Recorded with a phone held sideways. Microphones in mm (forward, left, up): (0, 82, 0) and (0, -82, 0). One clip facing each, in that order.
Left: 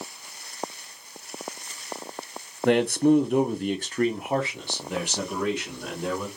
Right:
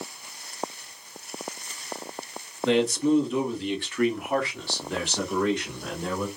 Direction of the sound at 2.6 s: 55° left (ahead or behind).